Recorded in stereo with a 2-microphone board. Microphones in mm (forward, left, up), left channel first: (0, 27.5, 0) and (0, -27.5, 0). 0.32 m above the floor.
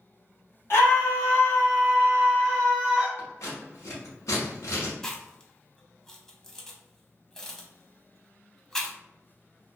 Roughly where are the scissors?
Left.